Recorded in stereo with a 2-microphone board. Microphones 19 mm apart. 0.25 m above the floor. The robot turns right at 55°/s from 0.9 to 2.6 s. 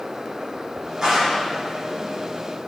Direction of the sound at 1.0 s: 35° right (ahead or behind).